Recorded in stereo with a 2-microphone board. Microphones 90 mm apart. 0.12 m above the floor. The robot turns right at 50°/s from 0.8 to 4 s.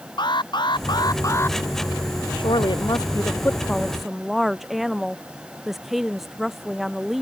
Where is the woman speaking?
100° left; by 7.2 s straight behind.